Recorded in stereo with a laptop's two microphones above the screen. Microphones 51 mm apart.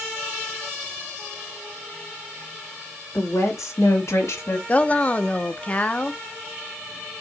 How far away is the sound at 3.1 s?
About 2 m.